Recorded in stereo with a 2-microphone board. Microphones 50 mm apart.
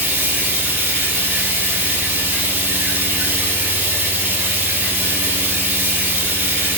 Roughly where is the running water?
Right.